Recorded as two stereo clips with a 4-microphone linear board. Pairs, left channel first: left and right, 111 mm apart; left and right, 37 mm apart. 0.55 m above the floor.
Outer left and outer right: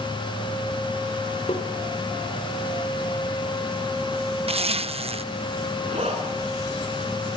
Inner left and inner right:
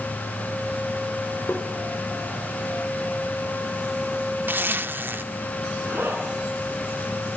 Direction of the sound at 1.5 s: 70° left (ahead or behind).